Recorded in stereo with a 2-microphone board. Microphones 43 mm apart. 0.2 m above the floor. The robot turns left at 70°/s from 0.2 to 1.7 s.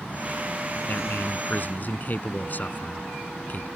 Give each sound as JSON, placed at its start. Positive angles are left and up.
{"t": 0.8, "sound": "a man speaking", "azimuth_deg": 125}